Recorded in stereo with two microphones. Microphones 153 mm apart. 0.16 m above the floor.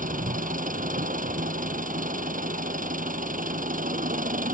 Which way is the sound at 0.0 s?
65° right (ahead or behind).